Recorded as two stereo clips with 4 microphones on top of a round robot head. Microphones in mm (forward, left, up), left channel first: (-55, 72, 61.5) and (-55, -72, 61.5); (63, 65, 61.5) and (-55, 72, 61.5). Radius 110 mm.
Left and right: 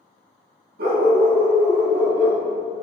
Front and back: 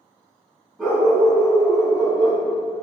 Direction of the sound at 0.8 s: 100° right.